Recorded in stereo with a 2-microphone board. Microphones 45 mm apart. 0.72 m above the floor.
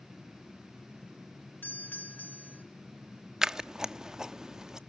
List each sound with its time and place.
1.6 s a doorbell: 40° left (ahead or behind), 1.8 m
3.4 s scissors: 15° right (ahead or behind), 0.5 m